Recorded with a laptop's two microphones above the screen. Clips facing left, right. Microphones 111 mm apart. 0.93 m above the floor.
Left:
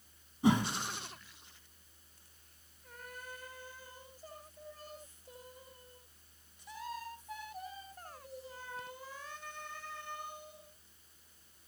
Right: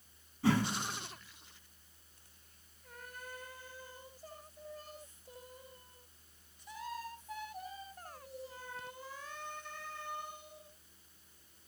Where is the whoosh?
20° left (ahead or behind), 1.1 m.